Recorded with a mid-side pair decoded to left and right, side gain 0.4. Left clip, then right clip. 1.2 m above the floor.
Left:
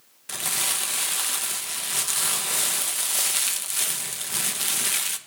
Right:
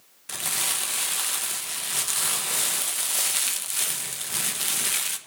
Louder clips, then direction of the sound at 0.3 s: Left 1 dB; 10° left.